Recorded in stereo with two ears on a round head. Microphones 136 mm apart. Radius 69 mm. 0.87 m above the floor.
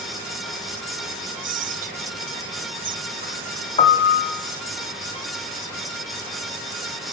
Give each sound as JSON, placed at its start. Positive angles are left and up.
{"t": 1.4, "sound": "whispering", "side_deg": -55, "distance_m": 0.9}
{"t": 3.8, "sound": "a piano", "side_deg": 30, "distance_m": 2.0}